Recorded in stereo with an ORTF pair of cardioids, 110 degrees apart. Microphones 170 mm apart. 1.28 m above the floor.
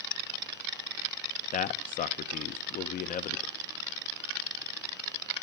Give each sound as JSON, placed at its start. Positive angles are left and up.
{"t": 1.5, "sound": "a man speaking", "azimuth_deg": 55, "distance_m": 0.9}